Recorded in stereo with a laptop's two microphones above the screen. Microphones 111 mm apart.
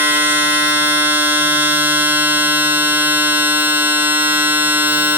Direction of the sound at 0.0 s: 20° right (ahead or behind).